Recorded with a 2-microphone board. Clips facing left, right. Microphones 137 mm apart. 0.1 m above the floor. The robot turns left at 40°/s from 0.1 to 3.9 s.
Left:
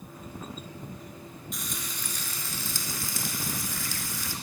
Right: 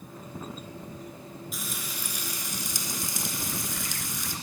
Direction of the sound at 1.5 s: 5° right (ahead or behind).